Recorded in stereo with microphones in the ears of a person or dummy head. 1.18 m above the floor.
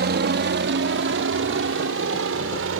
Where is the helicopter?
55° right (ahead or behind); by 2.8 s 75° right (ahead or behind).